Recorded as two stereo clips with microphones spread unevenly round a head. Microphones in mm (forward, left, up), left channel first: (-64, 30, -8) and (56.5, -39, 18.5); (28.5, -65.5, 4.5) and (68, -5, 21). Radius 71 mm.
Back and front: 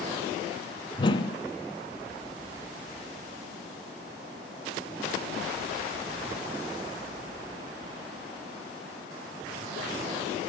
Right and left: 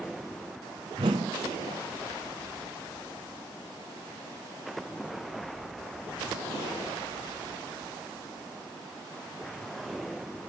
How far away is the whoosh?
About 1.4 m.